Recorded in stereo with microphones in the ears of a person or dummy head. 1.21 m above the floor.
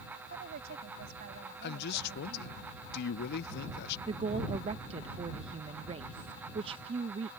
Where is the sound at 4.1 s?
30° right (ahead or behind).